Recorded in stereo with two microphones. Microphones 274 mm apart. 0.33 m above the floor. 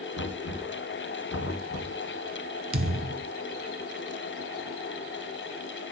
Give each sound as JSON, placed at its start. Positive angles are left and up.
{"t": 0.1, "sound": "knocking", "side_deg": 55, "distance_m": 2.5}
{"t": 2.7, "sound": "a thud", "side_deg": -50, "distance_m": 0.7}